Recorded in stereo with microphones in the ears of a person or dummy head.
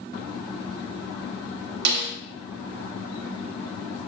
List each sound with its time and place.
1.9 s a snare drum: 50° right (ahead or behind), 1.3 m